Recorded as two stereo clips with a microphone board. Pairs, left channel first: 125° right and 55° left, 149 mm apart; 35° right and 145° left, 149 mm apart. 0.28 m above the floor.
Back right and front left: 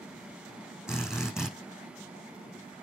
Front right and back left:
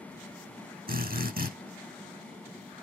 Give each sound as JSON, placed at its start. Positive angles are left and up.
{"t": 0.9, "sound": "a drill", "azimuth_deg": 140, "distance_m": 5.5}